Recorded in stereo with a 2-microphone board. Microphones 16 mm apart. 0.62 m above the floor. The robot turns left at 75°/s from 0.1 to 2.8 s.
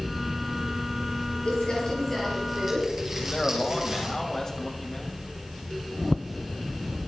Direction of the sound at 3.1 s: 30° left (ahead or behind).